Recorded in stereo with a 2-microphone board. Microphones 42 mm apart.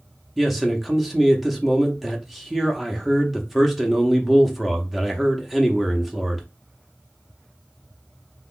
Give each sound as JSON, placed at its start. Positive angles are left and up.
{"t": 0.4, "sound": "a man speaking", "side_deg": -5, "distance_m": 0.8}